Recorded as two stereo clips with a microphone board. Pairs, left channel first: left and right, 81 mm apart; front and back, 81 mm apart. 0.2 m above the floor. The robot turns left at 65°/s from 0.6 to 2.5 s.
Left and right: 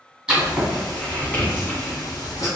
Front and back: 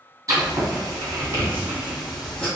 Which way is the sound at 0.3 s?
160° right.